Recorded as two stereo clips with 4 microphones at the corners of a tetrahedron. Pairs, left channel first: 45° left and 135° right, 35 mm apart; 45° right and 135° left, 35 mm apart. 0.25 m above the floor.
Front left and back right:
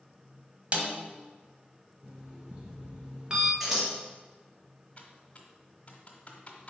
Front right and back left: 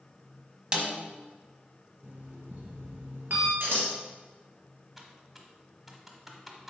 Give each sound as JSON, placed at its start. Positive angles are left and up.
{"t": 0.7, "sound": "a snare drum", "azimuth_deg": -170, "distance_m": 1.2}
{"t": 2.0, "sound": "an alarm clock", "azimuth_deg": 160, "distance_m": 1.6}
{"t": 3.6, "sound": "scissors", "azimuth_deg": 145, "distance_m": 2.0}
{"t": 5.0, "sound": "typing on a keyboard", "azimuth_deg": 60, "distance_m": 1.0}